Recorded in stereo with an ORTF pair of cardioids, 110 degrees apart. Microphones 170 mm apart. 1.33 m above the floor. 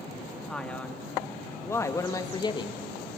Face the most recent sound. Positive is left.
turn(degrees=30)